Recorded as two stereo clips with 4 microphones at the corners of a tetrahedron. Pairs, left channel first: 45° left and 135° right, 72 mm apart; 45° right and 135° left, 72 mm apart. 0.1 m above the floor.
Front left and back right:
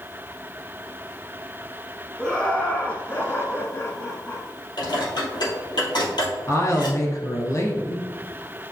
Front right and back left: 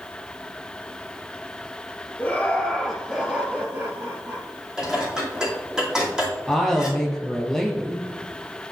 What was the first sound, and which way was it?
Laughter, 20° right.